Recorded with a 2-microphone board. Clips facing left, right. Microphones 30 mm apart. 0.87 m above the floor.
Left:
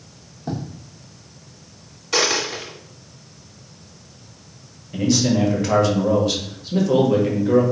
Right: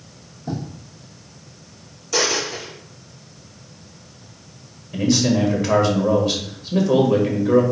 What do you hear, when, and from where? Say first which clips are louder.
0.5 s writing: even; 65° left (ahead or behind), 1.3 m
2.1 s a dropped coin: left 1 dB; 55° left (ahead or behind), 1.6 m
4.9 s a man speaking: even; 5° right (ahead or behind), 1.3 m